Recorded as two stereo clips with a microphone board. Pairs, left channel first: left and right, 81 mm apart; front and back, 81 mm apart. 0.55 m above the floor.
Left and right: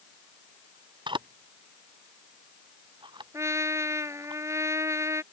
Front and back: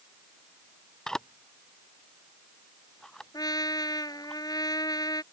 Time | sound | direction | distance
1.1 | a camera shutter | 85° right | ?
3.3 | a trumpet | 35° right | ?